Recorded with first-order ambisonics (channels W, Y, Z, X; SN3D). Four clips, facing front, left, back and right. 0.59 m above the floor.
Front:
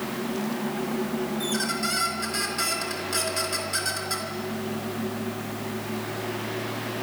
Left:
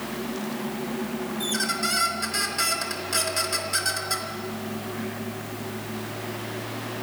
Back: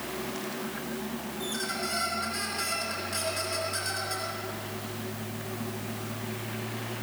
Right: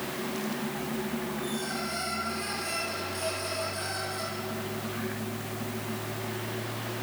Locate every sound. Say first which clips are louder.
1.4 s a squeak: left 6 dB, front 2 dB; 65° left, 4 m